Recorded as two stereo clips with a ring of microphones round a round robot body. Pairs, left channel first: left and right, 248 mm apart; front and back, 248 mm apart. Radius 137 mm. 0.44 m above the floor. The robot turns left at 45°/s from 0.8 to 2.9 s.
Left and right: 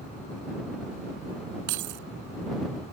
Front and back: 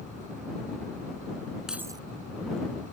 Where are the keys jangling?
90° right; by 2.1 s 110° right.